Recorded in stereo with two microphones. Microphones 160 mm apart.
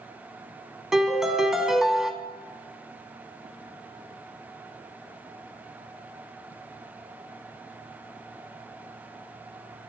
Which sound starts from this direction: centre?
A piano, at 0.9 s.